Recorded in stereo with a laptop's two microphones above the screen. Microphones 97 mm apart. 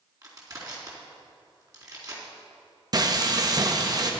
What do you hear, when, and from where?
0.2 s crushing: 40° right (ahead or behind), 4 m
2.9 s frying: 40° right (ahead or behind), 0.9 m